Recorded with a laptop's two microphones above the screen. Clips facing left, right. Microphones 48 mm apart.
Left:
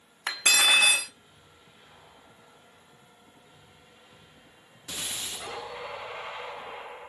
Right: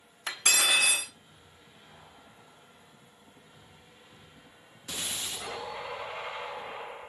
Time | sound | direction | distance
0.3 | cutlery clinking | 50° left (ahead or behind) | 0.7 m